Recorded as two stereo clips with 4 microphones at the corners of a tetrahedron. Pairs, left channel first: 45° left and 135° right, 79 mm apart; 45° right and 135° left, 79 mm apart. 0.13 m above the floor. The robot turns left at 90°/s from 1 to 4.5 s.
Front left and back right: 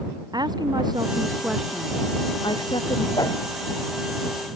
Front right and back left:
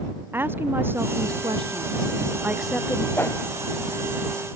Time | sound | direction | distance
0.3 | a woman speaking | 165° right | ?
3.2 | a whoosh | 20° left | ?